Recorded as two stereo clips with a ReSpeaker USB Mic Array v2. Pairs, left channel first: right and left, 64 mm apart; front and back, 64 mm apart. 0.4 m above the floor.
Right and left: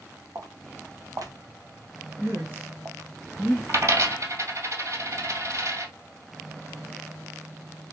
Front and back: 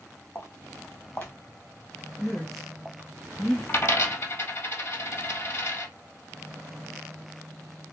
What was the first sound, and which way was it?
Footsteps, 50° left.